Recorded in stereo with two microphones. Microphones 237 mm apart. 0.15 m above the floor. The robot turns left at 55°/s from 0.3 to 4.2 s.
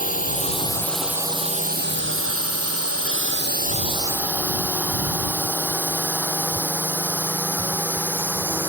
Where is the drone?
35° left (ahead or behind); by 8.7 s 10° right (ahead or behind).